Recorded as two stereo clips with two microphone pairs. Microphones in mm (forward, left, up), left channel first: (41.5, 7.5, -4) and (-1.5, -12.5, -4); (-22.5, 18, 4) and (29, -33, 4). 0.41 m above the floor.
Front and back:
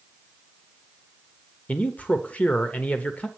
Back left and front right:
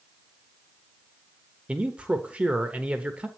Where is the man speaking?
15° left, 0.9 m.